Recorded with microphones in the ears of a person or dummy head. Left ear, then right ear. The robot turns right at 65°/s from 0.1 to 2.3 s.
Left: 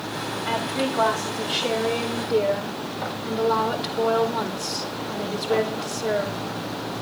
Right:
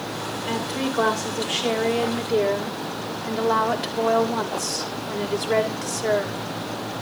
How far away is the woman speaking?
About 6 m.